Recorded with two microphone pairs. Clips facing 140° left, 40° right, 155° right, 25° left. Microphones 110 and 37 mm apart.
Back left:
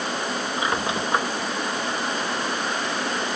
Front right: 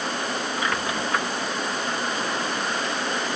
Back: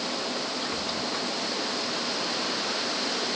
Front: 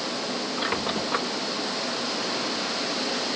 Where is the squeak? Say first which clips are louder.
Back left 3 dB, front 4 dB; 75° left.